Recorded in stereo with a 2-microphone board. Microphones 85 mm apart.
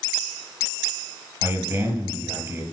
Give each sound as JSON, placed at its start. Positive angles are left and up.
{"t": 1.4, "sound": "a man speaking", "side_deg": -30, "distance_m": 4.0}